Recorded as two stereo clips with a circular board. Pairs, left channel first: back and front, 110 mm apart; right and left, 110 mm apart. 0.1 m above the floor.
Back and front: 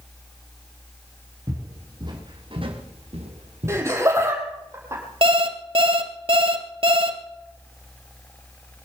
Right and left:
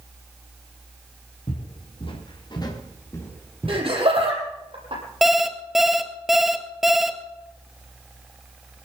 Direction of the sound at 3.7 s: 60° left.